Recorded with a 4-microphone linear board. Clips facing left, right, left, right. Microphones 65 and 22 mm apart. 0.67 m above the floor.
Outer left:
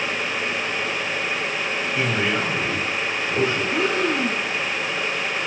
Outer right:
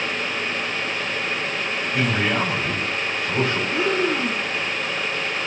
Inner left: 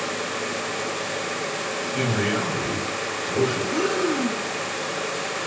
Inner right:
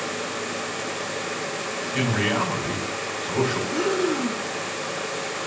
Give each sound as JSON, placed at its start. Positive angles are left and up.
{"t": 1.9, "sound": "a man speaking", "side_deg": -70, "distance_m": 5.0}
{"t": 3.7, "sound": "breathing", "side_deg": -5, "distance_m": 5.0}